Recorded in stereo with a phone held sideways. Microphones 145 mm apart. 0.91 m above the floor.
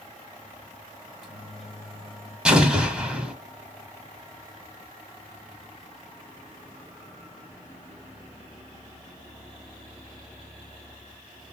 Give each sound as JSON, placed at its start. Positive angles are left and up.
{"t": 1.1, "sound": "a microwave", "side_deg": 0, "distance_m": 1.0}
{"t": 2.5, "sound": "an explosion", "side_deg": -5, "distance_m": 1.0}